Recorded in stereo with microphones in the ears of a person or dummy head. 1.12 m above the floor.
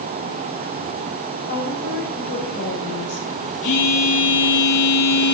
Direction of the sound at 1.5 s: 60° left (ahead or behind).